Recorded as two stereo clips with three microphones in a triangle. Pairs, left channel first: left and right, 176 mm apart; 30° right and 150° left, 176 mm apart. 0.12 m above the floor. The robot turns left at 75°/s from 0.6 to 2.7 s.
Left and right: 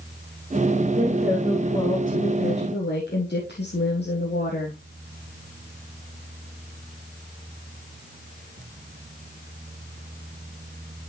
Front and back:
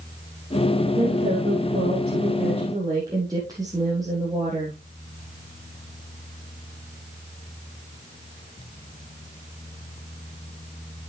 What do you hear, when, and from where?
0.9 s a woman speaking: 145° right, 4 m; by 4.8 s 80° left, 4 m